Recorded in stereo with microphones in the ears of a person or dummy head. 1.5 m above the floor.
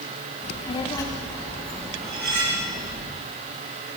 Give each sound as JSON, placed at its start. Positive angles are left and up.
{"t": 0.4, "sound": "a child speaking", "side_deg": 30, "distance_m": 1.5}
{"t": 2.0, "sound": "cutlery clinking", "side_deg": -60, "distance_m": 2.5}